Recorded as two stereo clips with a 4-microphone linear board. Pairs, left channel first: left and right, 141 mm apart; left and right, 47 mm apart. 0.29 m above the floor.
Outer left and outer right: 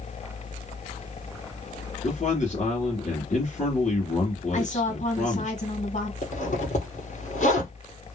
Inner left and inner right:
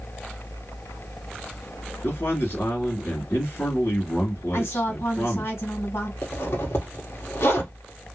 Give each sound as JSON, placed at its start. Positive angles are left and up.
{"t": 2.0, "sound": "a man speaking", "side_deg": 60, "distance_m": 2.5}
{"t": 4.5, "sound": "a woman speaking", "side_deg": 65, "distance_m": 2.0}
{"t": 6.2, "sound": "a zipper", "side_deg": 60, "distance_m": 2.0}